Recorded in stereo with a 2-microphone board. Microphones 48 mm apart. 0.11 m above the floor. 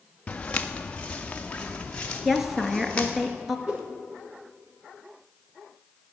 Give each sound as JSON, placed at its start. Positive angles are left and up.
{"t": 0.3, "sound": "footsteps", "side_deg": 25, "distance_m": 0.8}
{"t": 2.2, "sound": "a woman speaking", "side_deg": -5, "distance_m": 1.4}
{"t": 3.7, "sound": "a whoosh", "side_deg": -20, "distance_m": 6.0}